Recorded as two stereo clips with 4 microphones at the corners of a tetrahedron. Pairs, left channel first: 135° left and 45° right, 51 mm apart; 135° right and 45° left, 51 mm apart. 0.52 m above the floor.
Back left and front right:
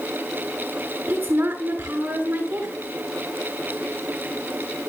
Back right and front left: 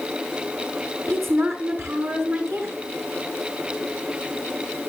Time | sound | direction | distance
1.1 | a woman speaking | 10° left | 6 m